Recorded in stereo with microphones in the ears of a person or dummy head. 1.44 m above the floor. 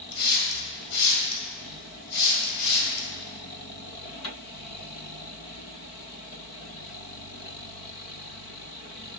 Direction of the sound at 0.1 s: 55° left (ahead or behind).